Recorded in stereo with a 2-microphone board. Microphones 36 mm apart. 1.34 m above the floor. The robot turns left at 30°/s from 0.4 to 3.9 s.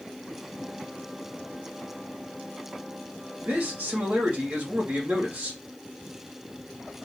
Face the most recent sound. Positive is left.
turn(degrees=-55)  # may be behind; listen again after turning